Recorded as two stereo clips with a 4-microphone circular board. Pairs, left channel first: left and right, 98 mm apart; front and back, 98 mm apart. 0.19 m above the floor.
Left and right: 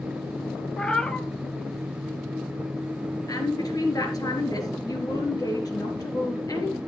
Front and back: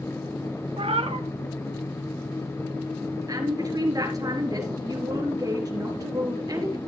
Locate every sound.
0.8 s a cat meowing: 170° left, 0.8 m
3.3 s a woman speaking: 135° left, 4 m